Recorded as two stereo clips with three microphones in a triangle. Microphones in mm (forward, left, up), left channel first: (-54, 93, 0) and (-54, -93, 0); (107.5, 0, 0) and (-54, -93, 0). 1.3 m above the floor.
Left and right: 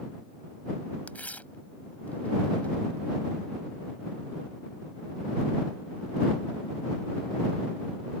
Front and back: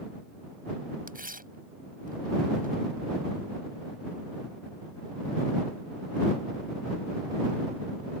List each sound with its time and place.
1.1 s tearing paper: 170° left